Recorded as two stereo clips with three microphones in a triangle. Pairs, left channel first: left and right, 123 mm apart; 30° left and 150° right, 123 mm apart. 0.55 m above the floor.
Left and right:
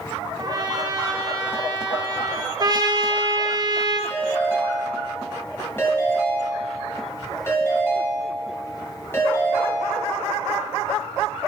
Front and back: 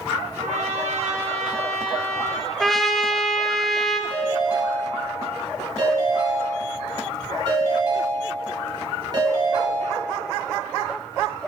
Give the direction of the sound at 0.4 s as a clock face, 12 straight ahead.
5 o'clock.